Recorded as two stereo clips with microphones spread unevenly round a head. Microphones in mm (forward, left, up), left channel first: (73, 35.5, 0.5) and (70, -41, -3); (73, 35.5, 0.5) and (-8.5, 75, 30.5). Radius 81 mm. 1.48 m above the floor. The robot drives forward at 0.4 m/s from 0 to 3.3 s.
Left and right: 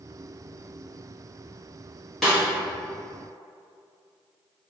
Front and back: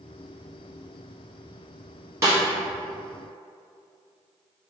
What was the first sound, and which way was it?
A snare drum, 170° left.